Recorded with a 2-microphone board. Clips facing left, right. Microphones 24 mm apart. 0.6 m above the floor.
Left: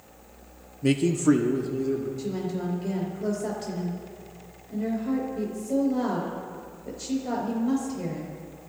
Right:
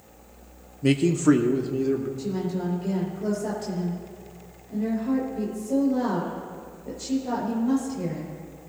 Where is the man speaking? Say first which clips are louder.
Right 2 dB; 5° right (ahead or behind), 0.6 m; by 2.1 s 25° right (ahead or behind), 1.3 m.